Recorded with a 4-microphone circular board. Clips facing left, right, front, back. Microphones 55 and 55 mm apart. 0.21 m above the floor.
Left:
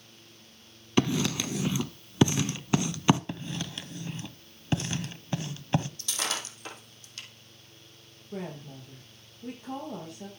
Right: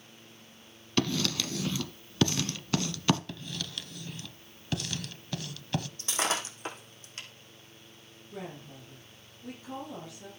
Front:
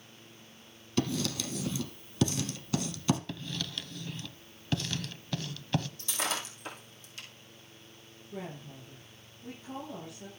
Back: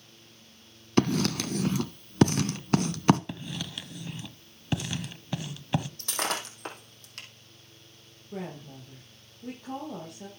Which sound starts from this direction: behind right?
Breaking glass, at 6.0 s.